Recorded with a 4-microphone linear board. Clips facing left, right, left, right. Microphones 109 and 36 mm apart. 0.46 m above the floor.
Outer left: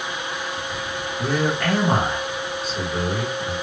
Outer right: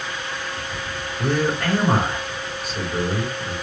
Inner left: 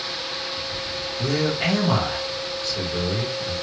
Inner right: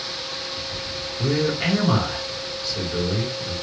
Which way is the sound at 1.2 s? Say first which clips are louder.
Outer right 1 dB, inner right 1 dB; 5° right (ahead or behind).